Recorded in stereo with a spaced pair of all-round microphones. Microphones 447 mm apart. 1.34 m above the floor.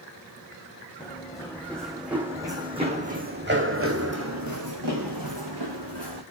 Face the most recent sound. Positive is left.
turn(degrees=-60)  # may be behind; listen again after turning